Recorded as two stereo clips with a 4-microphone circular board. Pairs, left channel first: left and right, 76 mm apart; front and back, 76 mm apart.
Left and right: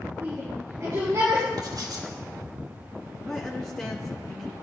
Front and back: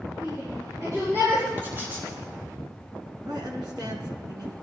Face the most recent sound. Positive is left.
turn(degrees=170)